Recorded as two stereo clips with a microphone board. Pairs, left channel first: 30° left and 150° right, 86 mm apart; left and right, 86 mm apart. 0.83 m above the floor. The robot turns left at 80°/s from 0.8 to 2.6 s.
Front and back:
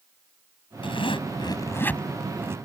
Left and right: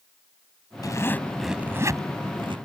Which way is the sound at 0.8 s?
45° left.